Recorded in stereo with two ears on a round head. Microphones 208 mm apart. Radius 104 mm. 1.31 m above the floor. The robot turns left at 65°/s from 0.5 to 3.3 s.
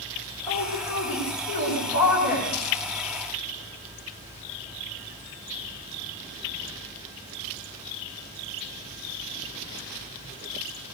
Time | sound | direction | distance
0.5 | a woman speaking | 160° left | 9 m